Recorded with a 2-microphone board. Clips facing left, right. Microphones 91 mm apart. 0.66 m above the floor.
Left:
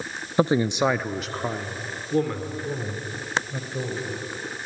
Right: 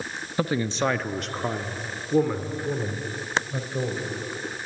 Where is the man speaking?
25° left (ahead or behind), 0.5 m; by 4.2 s 15° right (ahead or behind), 2.5 m.